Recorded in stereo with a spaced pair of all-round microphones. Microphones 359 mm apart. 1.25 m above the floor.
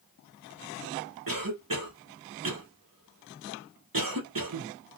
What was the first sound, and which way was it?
A cough, 65° right (ahead or behind).